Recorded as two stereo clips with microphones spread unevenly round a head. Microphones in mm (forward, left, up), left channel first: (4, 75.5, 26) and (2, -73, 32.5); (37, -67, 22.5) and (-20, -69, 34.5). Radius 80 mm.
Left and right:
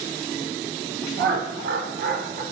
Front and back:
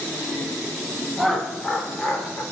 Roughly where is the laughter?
Right.